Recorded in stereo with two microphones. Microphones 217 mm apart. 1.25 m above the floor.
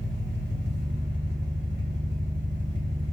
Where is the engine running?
60° right (ahead or behind), 1.0 m.